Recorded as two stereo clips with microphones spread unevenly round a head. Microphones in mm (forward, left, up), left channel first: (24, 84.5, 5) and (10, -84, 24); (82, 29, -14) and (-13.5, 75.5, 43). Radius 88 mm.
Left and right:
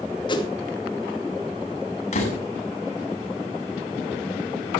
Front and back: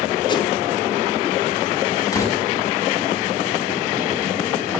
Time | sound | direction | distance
0.3 | a whoosh | 20° left | 2.5 m
2.1 | a door slam | 35° left | 7 m